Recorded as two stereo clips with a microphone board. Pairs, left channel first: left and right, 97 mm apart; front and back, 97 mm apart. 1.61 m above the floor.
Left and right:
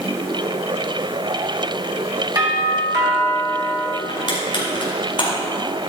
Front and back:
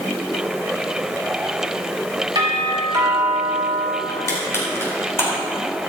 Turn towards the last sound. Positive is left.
turn(degrees=60)